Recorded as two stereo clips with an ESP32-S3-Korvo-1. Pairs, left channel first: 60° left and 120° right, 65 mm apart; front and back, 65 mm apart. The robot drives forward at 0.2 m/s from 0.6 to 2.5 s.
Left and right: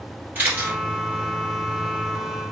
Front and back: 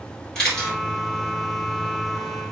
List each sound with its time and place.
0.3 s a camera shutter: 80° right, 1.6 m